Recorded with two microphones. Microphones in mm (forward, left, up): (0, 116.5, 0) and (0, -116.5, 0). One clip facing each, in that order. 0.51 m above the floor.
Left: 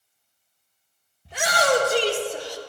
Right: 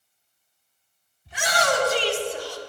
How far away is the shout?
About 1.9 m.